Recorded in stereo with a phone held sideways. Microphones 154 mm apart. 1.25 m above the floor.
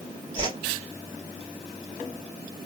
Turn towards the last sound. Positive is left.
turn(degrees=-30)  # may be behind; listen again after turning